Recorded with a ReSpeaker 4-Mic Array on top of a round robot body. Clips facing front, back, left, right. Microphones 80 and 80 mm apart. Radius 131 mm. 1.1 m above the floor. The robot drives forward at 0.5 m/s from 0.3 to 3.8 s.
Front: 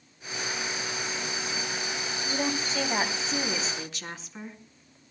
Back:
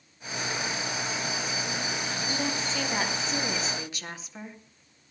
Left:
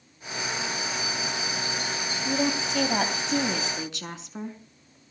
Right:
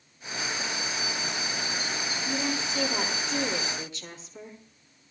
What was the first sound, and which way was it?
A woman speaking, 80° left.